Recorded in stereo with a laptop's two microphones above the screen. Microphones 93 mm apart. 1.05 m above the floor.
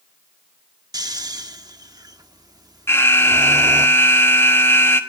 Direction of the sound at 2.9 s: 25° left (ahead or behind).